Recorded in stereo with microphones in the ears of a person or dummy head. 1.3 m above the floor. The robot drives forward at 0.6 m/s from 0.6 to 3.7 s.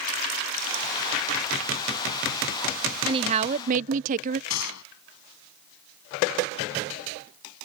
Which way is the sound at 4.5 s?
85° left.